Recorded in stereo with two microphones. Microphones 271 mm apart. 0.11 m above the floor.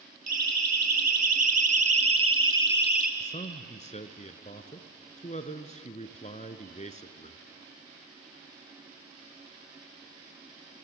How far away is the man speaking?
About 1.1 m.